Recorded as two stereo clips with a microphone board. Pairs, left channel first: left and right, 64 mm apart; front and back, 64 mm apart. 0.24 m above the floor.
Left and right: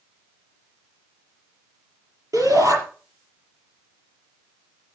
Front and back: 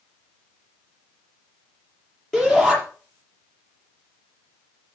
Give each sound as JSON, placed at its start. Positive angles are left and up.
{"t": 2.3, "sound": "a shout", "azimuth_deg": -85, "distance_m": 6.0}